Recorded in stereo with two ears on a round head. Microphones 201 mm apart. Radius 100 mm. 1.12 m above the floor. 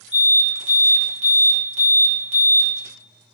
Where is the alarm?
30° right (ahead or behind), 1.6 m.